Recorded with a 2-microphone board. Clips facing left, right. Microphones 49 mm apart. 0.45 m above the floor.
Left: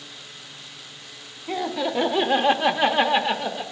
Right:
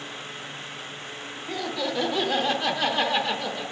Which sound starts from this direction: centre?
Laughter, at 1.5 s.